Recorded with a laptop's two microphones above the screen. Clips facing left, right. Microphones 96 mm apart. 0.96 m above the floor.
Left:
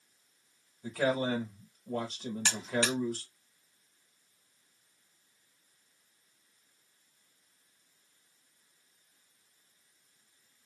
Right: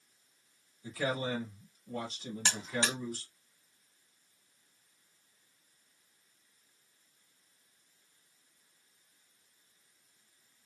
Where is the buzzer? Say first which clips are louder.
Left 3 dB; 25° right (ahead or behind), 0.9 m.